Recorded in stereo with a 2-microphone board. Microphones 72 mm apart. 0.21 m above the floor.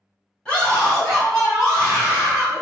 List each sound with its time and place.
0.5 s a scream: 15° left (ahead or behind), 1.6 m; by 2.6 s 25° right (ahead or behind), 2 m